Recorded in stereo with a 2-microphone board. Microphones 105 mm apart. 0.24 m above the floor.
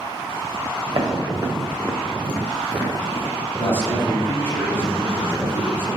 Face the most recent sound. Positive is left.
turn(degrees=20)  # may be behind; listen again after turning